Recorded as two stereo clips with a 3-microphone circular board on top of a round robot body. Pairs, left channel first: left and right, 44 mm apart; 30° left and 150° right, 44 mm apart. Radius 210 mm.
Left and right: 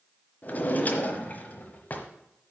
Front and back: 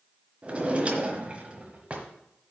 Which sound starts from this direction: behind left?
A drawer, at 0.4 s.